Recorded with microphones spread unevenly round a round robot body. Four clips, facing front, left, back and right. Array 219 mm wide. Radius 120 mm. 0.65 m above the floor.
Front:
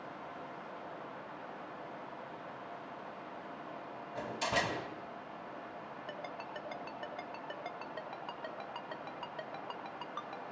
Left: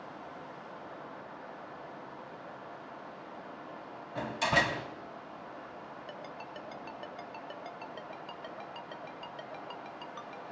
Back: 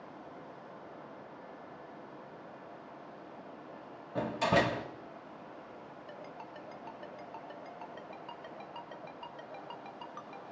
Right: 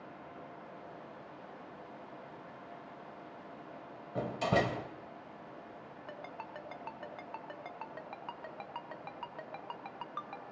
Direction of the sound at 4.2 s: 140° right.